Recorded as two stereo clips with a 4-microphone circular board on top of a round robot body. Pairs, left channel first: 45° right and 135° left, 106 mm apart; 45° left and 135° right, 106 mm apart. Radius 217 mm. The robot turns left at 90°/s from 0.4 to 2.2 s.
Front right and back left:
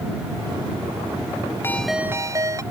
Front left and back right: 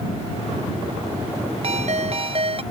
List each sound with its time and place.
1.6 s a ringtone: 115° right; by 2.6 s 165° right